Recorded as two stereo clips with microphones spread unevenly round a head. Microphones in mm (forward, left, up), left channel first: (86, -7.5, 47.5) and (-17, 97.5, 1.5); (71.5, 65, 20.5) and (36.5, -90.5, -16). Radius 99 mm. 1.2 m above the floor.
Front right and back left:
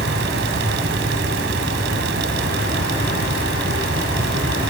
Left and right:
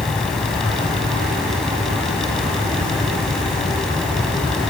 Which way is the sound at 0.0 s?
160° left.